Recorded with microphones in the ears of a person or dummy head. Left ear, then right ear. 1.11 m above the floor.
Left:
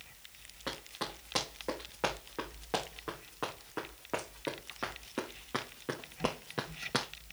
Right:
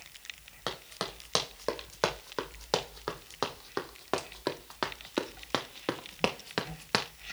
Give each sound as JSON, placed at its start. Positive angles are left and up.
{"t": 0.7, "sound": "running footsteps", "side_deg": -50, "distance_m": 4.0}